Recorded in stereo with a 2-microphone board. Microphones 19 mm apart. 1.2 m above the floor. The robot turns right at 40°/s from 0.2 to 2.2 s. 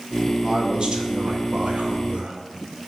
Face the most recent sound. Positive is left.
turn(degrees=-70)